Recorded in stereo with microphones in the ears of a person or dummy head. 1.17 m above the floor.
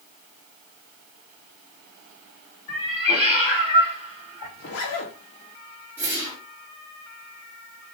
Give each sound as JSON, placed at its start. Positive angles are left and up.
{"t": 2.7, "sound": "a cat meowing", "side_deg": 10, "distance_m": 1.8}
{"t": 4.6, "sound": "a zipper", "side_deg": 45, "distance_m": 1.2}
{"t": 6.0, "sound": "a whoosh", "side_deg": -20, "distance_m": 2.0}